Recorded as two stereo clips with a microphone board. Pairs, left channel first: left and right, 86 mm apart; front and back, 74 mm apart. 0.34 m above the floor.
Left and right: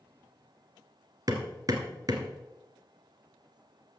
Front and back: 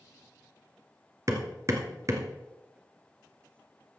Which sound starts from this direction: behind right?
Hammering, at 1.3 s.